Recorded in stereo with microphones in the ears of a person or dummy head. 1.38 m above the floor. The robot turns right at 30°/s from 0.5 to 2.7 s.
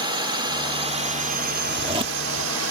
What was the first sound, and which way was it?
A drone, 20° right (ahead or behind).